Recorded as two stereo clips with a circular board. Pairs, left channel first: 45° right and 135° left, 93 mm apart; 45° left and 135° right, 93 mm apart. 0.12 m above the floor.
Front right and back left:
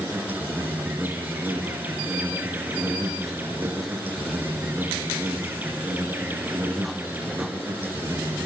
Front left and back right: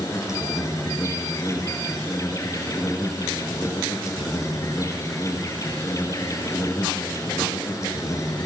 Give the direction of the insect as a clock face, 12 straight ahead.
9 o'clock.